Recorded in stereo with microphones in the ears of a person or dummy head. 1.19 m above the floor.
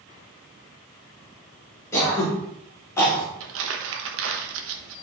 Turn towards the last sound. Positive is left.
turn(degrees=-75)  # may be behind; listen again after turning